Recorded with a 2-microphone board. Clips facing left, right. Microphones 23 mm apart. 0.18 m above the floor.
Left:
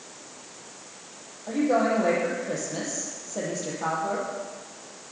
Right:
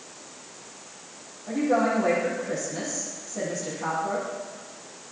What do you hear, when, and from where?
1.5 s a woman speaking: 30° left (ahead or behind), 6.5 m